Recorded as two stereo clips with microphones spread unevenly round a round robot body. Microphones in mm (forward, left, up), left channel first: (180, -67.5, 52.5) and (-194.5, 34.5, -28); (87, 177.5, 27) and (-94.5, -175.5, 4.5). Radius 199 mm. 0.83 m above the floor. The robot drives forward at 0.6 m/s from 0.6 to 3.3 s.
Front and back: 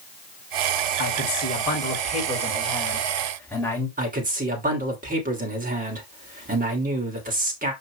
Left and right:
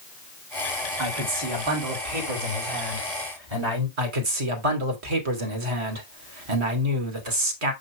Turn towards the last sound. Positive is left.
turn(degrees=-125)